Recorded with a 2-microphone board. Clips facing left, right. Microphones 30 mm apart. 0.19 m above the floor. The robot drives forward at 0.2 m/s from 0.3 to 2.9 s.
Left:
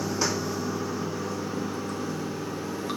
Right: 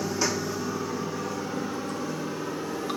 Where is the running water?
5° left (ahead or behind), 1.0 m.